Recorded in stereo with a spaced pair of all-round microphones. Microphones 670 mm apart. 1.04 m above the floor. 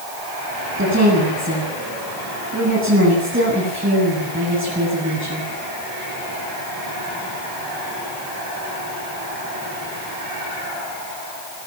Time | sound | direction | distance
0.8 | a woman speaking | 20° right (ahead or behind) | 9.5 m